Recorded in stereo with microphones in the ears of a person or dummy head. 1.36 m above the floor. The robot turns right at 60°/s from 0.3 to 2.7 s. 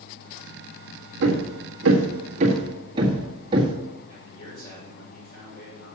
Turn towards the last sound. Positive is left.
turn(degrees=25)  # may be behind; listen again after turning